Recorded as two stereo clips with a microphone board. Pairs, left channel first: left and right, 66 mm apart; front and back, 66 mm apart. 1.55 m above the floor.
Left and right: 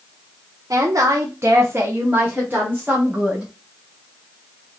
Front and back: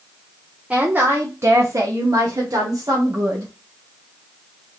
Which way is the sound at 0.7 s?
105° right.